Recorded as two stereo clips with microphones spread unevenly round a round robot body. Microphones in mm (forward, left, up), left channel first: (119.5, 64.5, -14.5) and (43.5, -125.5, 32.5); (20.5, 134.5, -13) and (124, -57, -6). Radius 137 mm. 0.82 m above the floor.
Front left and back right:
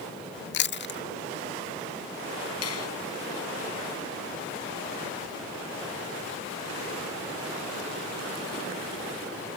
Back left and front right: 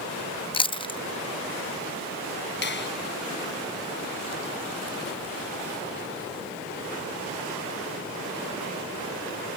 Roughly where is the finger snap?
Left.